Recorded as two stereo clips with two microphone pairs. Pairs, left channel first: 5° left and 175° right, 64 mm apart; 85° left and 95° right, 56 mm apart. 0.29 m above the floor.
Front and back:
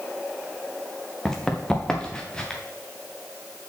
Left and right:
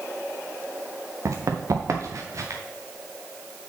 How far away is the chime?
I don't hear a chime.